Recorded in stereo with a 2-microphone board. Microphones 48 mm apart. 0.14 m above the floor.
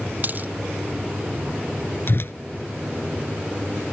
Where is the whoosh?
60° left (ahead or behind).